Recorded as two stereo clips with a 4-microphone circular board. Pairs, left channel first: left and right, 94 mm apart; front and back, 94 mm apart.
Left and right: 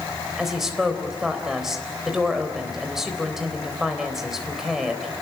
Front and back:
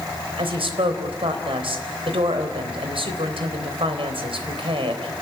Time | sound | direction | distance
0.4 | a woman speaking | 175° right | 3.5 m